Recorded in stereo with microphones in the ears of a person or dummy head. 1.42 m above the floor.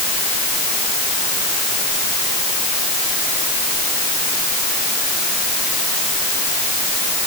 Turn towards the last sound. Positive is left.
No sound to turn to.